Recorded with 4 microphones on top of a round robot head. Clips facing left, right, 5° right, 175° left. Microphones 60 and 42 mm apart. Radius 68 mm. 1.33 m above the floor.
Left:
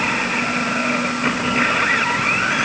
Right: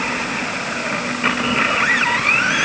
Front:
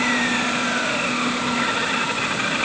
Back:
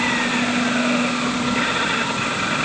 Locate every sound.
Only background noise.